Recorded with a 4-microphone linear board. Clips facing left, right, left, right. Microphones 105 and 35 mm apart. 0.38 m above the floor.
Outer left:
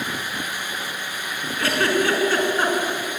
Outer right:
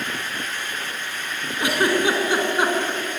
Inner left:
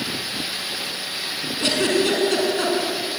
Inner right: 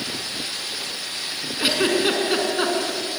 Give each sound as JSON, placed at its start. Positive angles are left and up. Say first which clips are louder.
{"t": 1.6, "sound": "a giggle", "louder": "outer right 1 dB, even", "side_deg": -15, "distance_m": 4.5}